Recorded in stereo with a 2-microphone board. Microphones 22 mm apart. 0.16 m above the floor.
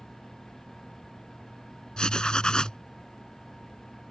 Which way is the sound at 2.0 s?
40° left (ahead or behind).